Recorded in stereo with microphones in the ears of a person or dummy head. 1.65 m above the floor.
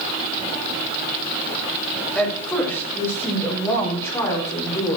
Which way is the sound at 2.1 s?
10° left (ahead or behind).